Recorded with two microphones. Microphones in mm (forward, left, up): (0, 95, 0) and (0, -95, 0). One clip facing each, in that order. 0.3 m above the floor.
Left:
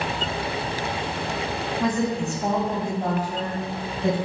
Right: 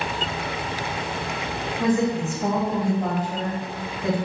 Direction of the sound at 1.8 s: 10° right (ahead or behind).